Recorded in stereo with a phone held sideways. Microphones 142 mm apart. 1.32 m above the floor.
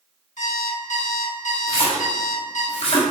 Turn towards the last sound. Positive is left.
turn(degrees=40)  # may be behind; listen again after turning